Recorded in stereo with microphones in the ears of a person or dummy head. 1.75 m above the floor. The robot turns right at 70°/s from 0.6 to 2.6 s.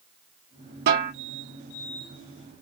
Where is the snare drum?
50° right (ahead or behind), 1.8 m; by 1.1 s 55° right (ahead or behind), 1.8 m.